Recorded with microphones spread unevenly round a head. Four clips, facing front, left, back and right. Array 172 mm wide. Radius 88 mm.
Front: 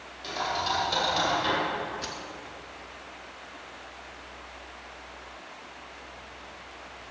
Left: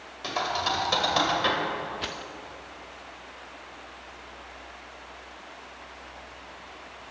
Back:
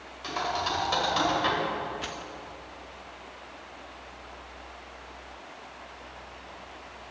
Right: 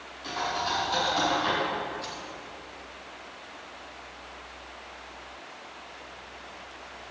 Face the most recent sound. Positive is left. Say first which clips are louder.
# left 2 dB, even
turn(degrees=80)